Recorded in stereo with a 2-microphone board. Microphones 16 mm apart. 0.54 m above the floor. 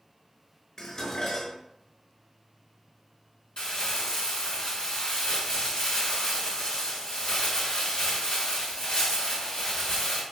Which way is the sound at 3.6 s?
65° left (ahead or behind).